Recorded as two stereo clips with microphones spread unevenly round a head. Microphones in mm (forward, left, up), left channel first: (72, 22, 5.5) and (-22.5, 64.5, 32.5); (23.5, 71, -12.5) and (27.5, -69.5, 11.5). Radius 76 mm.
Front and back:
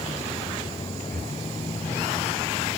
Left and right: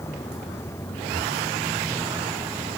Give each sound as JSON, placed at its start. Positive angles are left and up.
{"t": 0.0, "sound": "a vehicle", "azimuth_deg": 20}
{"t": 1.1, "sound": "breathing", "azimuth_deg": -170}